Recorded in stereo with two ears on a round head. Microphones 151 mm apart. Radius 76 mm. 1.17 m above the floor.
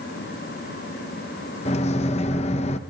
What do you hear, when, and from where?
1.6 s a microwave: 35° left (ahead or behind), 0.6 m